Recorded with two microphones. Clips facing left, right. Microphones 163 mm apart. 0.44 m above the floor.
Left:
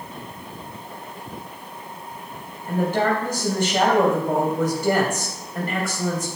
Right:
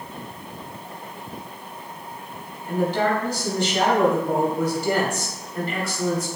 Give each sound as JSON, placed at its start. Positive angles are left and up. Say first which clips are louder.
{"t": 2.7, "sound": "a woman speaking", "louder": "left 1 dB", "side_deg": 50, "distance_m": 3.0}